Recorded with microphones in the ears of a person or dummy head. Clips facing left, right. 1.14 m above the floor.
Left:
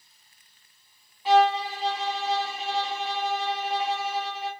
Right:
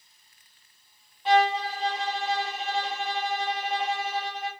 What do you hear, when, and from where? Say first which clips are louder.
1.2 s a violin: left 2 dB; centre (ahead or behind), 0.9 m